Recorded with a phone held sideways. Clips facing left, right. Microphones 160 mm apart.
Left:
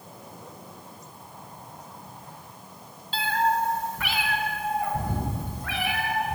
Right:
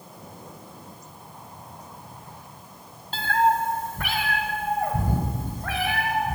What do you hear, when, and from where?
3.1 s a cat meowing: 45° right (ahead or behind), 0.9 m; by 6.3 s 40° right (ahead or behind), 4 m